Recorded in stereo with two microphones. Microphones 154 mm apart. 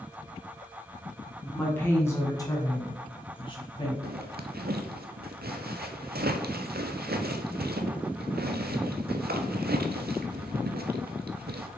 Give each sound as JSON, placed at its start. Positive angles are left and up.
{"t": 1.4, "sound": "a woman speaking", "side_deg": 10, "distance_m": 2.5}
{"t": 4.0, "sound": "a zipper", "side_deg": -85, "distance_m": 0.7}